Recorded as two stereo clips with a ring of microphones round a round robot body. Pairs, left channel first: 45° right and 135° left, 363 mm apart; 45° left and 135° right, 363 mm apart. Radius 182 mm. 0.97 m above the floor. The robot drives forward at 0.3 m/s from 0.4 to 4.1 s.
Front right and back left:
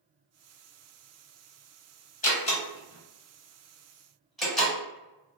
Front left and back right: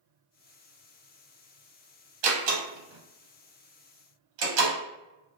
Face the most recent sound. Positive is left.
turn(degrees=-135)